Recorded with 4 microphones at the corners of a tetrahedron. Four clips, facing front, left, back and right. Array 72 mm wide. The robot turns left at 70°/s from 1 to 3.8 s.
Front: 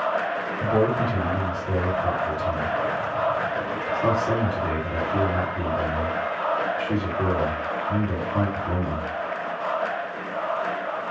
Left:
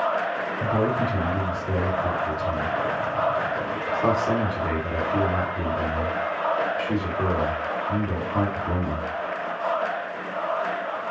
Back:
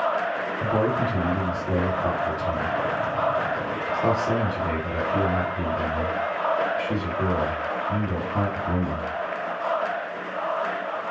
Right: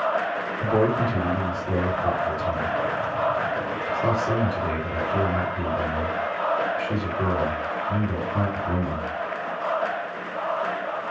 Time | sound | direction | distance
0.6 | a man speaking | 75° right | 1.7 m